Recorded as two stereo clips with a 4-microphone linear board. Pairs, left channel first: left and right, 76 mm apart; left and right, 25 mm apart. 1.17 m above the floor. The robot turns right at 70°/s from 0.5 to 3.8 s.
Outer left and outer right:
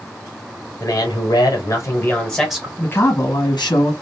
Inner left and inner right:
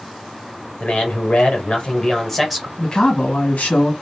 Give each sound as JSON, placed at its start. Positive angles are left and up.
{"t": 0.8, "sound": "a man speaking", "azimuth_deg": 65, "distance_m": 1.2}
{"t": 2.8, "sound": "a man speaking", "azimuth_deg": 15, "distance_m": 1.3}